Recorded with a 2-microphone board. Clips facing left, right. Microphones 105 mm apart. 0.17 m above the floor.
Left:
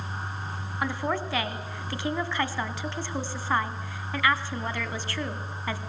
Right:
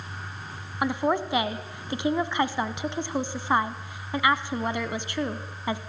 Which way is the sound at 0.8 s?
20° right (ahead or behind).